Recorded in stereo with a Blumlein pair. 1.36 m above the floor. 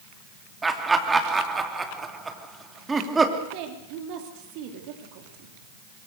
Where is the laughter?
10° right, 3 m.